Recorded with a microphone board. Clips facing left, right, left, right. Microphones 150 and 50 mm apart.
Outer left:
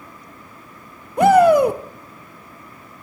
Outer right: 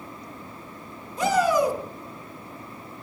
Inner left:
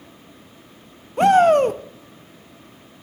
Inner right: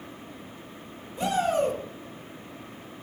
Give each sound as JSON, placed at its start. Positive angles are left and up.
{"t": 1.2, "sound": "a shout", "side_deg": 65, "distance_m": 0.8}